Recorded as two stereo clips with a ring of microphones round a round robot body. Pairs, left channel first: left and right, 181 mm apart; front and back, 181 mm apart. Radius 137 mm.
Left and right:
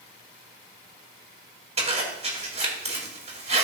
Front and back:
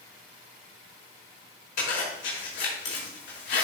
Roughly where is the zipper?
Ahead right.